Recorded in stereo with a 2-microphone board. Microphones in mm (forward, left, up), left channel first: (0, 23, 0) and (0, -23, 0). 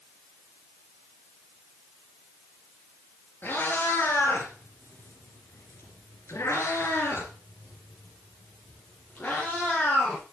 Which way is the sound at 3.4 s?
45° left (ahead or behind).